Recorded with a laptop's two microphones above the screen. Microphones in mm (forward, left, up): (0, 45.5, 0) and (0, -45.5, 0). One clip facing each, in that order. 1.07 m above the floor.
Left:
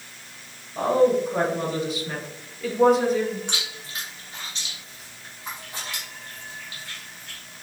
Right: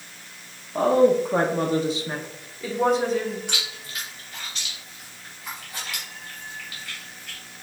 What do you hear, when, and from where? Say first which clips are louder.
0.8 s a woman speaking: right 2 dB; 80° right, 0.8 m; by 3.4 s 10° left (ahead or behind), 1.6 m
3.5 s chewing: even; 25° left (ahead or behind), 1.3 m